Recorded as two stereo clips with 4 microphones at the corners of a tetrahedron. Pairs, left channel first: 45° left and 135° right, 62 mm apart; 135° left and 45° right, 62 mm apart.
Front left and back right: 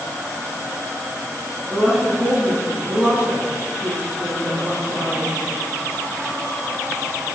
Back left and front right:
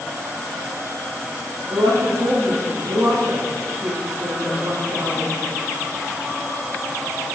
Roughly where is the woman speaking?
Ahead right.